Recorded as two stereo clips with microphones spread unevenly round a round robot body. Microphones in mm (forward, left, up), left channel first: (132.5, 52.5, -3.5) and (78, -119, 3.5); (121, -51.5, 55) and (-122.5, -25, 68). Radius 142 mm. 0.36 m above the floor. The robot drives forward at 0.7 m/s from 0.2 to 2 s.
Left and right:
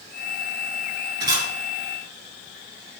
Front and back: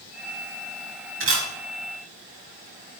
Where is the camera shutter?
155° right, 3 m.